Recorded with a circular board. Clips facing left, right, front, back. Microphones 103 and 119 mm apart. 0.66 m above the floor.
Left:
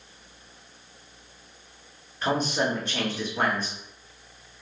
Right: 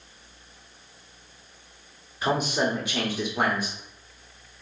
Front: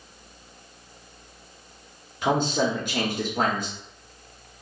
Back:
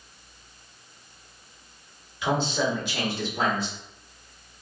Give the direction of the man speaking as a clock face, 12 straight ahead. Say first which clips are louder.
Right 1 dB, front 2 dB; 12 o'clock.